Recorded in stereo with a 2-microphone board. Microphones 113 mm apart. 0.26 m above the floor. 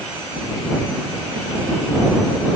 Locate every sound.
Only background noise.